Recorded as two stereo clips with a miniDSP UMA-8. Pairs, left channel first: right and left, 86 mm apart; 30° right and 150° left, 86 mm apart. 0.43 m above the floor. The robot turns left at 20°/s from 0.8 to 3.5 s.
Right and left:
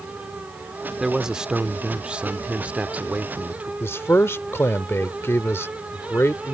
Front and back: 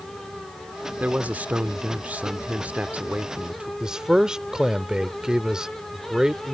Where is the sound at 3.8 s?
130° right.